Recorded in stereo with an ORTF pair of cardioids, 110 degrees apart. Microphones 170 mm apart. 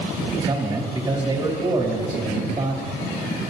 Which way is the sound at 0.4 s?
30° right.